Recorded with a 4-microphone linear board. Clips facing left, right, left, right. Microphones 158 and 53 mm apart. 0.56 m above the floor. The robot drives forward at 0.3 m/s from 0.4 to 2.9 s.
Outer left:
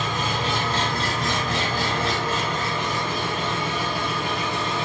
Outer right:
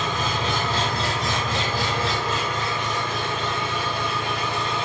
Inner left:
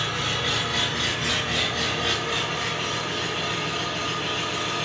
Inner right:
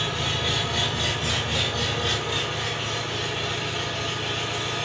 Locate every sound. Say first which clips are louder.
0.0 s an engine running: even, inner left 1 dB; 55° left (ahead or behind), 3 m; by 4.8 s 45° left (ahead or behind), 3.5 m